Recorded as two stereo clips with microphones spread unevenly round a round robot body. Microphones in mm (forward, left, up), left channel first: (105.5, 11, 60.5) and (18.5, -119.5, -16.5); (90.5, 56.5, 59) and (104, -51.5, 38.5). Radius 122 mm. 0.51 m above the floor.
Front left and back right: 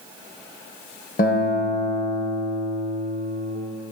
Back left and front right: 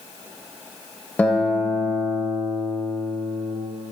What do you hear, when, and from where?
1.2 s a guitar: 20° left, 2.5 m